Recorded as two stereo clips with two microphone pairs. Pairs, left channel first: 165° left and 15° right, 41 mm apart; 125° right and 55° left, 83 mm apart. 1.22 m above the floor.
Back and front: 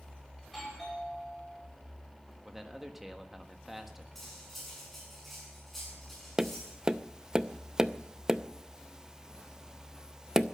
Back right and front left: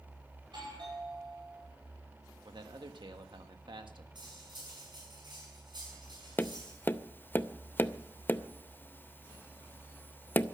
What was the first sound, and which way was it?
A doorbell, 75° left.